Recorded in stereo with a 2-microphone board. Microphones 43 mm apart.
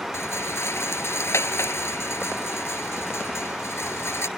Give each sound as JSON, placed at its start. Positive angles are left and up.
{"t": 0.1, "sound": "a rattle", "side_deg": 80}